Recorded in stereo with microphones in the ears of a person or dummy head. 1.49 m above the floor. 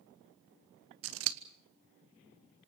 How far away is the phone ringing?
I don't hear a phone ringing.